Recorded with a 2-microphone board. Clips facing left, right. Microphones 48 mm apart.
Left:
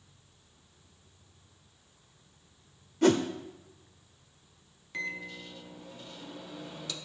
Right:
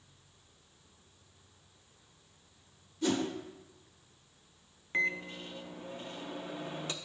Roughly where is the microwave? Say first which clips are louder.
Right 5 dB; right.